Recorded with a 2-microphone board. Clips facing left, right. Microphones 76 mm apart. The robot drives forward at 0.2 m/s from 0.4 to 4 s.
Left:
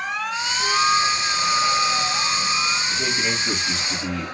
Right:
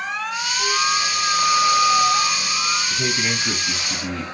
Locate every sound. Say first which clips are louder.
0.6 s a flute: left 3 dB; 20° right (ahead or behind), 7 m; by 2.8 s 15° right (ahead or behind), 7.5 m
2.9 s a man speaking: right 1 dB; 25° right (ahead or behind), 7.5 m